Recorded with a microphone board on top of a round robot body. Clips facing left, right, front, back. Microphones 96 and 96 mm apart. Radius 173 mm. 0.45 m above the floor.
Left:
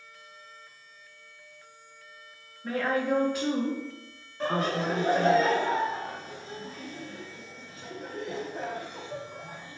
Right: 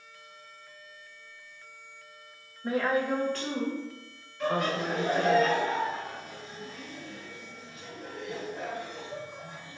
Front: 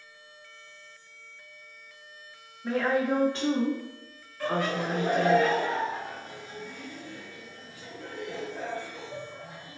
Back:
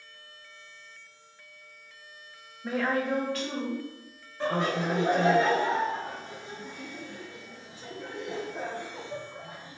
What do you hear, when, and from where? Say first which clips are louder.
2.6 s a woman speaking: even, front 2 dB; 115° right, 1.2 m; by 5.4 s 40° left, 3.5 m
4.4 s laughter: left 1 dB, back 1 dB; 125° left, 1.0 m